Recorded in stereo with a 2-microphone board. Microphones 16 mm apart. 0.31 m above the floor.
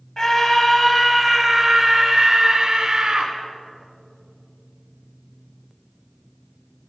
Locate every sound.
0.2 s a scream: 30° left (ahead or behind), 2 m; by 3.3 s 55° right (ahead or behind), 3 m